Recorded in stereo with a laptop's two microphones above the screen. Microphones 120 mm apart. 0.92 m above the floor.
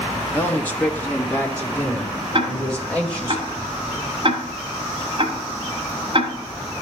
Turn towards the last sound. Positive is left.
turn(degrees=-45)  # may be behind; listen again after turning